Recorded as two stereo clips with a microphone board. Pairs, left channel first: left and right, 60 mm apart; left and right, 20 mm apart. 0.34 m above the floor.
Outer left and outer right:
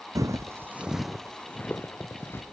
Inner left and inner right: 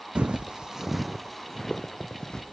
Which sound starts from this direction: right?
Footsteps, at 0.1 s.